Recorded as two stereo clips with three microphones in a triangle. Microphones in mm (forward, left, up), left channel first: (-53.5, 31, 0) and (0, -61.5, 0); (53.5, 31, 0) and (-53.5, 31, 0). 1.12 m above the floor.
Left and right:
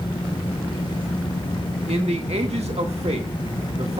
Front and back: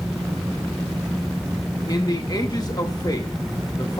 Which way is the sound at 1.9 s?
50° right.